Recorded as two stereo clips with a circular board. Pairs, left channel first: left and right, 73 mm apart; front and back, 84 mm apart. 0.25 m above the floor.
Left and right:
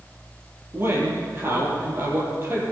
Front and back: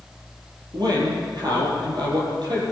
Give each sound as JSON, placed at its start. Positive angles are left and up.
{"t": 0.7, "sound": "a man speaking", "azimuth_deg": -150, "distance_m": 6.5}